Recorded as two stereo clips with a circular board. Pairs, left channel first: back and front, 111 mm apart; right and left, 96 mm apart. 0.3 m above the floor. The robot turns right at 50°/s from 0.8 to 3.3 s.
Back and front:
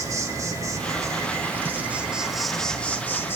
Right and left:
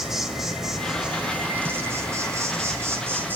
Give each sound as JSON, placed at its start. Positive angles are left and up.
{"t": 0.0, "sound": "an insect", "azimuth_deg": 5, "distance_m": 1.7}